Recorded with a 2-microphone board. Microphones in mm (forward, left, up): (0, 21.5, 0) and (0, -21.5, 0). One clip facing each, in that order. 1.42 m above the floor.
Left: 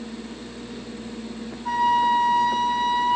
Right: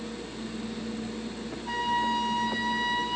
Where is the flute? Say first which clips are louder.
Left 8 dB; 70° left (ahead or behind), 5.5 m.